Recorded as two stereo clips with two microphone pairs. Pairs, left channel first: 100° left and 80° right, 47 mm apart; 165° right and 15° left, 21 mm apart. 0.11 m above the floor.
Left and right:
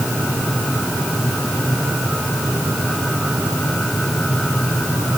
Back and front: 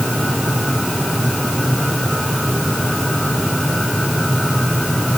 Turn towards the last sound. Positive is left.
No sound to turn to.